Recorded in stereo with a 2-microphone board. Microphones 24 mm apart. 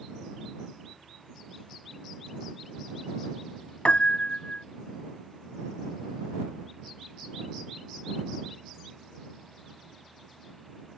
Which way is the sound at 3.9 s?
60° left (ahead or behind).